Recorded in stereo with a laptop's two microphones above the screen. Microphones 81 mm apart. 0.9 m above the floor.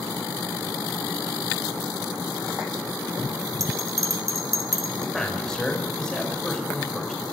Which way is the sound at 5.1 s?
10° left (ahead or behind).